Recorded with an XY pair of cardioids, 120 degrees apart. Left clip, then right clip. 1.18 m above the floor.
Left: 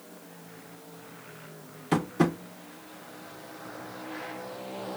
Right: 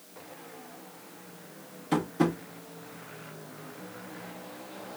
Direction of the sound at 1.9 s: 30° left.